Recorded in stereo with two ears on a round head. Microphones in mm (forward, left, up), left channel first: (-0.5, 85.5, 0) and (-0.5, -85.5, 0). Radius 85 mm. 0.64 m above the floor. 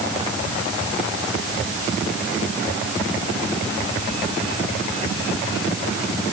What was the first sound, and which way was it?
Only background noise.